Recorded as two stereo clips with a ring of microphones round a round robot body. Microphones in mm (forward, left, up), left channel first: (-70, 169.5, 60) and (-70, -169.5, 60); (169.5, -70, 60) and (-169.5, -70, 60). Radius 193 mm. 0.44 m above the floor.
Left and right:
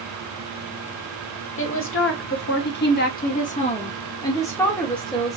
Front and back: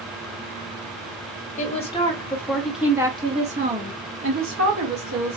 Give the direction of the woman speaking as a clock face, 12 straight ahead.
10 o'clock.